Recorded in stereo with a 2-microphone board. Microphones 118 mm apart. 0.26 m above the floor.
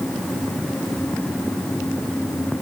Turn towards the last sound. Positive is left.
No sound to turn to.